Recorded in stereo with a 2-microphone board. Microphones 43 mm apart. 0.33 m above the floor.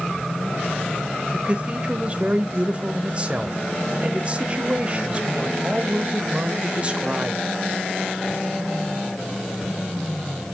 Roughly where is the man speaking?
Right.